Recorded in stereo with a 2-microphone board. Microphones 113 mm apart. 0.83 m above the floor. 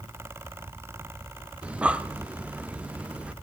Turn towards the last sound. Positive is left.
turn(degrees=-10)  # may be behind; listen again after turning